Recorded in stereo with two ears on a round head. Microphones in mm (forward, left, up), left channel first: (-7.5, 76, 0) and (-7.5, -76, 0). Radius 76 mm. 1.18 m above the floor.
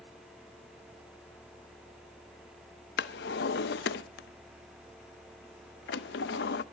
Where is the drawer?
70° left (ahead or behind), 0.6 m.